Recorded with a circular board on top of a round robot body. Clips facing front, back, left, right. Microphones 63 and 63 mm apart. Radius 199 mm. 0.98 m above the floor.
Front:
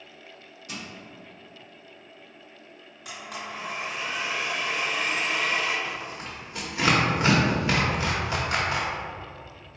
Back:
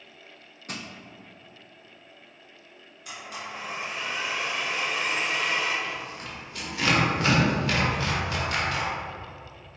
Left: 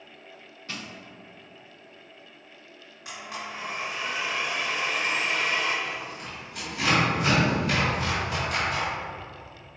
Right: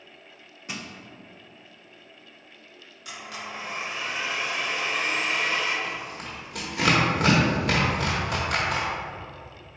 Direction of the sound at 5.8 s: 65° right.